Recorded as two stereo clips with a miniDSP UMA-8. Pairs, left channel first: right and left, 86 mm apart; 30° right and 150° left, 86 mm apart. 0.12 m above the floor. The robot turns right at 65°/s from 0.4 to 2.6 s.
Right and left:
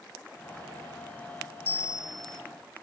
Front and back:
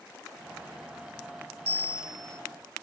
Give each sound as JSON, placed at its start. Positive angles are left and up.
{"t": 1.6, "sound": "a bell", "azimuth_deg": -135, "distance_m": 1.9}